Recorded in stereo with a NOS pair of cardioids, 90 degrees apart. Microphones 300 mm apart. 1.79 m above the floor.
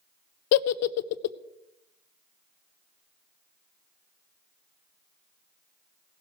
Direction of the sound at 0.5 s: 60° left.